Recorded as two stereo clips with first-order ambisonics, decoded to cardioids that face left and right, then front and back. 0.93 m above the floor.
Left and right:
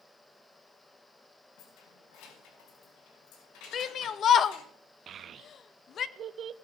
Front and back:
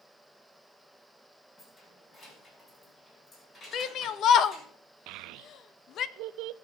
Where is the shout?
40° left, 0.8 m.